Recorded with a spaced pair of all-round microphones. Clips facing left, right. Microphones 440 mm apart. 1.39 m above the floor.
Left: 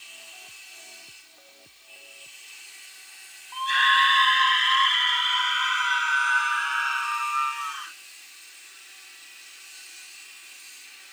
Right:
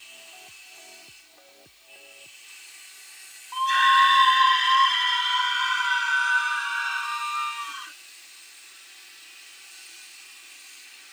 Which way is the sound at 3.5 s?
65° right (ahead or behind).